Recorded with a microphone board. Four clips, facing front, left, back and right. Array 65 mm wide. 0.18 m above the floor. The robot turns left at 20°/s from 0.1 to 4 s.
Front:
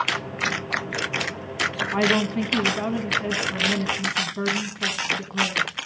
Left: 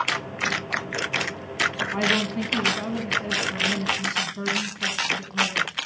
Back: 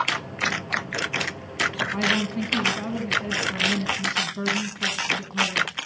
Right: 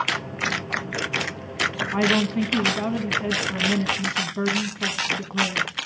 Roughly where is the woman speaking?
Ahead right.